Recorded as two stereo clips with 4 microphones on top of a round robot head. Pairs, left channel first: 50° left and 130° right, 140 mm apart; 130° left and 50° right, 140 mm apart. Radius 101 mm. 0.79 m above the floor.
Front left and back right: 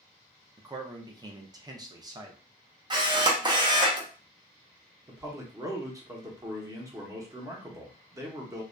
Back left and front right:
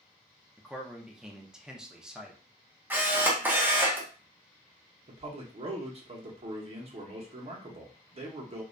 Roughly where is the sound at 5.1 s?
Right.